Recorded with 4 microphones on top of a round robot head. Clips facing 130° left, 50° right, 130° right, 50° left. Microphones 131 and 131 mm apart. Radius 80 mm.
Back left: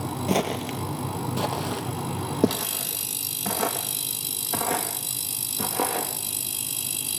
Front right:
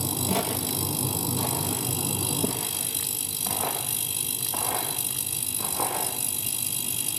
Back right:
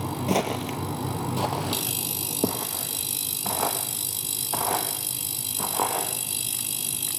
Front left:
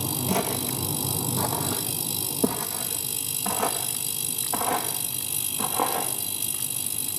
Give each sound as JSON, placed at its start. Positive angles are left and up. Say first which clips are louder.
{"t": 0.3, "sound": "footsteps", "louder": "back left 5 dB, back right 3 dB", "azimuth_deg": 170, "distance_m": 2.0}